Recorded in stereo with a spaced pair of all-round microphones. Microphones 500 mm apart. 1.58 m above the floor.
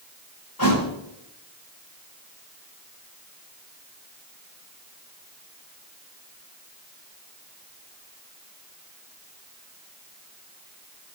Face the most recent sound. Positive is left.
turn(degrees=45)  # may be behind; listen again after turning